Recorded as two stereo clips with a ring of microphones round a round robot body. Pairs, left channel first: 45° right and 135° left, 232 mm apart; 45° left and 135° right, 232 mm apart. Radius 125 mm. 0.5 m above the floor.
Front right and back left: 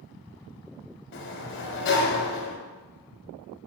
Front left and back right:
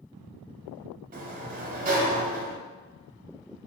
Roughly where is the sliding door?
Right.